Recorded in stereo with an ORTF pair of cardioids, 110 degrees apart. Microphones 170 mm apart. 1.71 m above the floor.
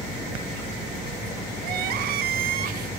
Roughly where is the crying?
Ahead right.